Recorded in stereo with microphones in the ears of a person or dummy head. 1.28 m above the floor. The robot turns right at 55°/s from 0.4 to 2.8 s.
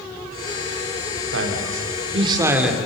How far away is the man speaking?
About 3 m.